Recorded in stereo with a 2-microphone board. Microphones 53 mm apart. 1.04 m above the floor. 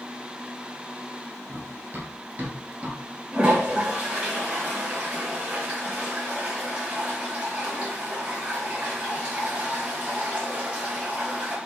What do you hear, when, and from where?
1.5 s running footsteps: 45° right (ahead or behind), 1.3 m; by 3.0 s 20° right (ahead or behind), 1.2 m
3.3 s a toilet flushing: 25° right (ahead or behind), 1.5 m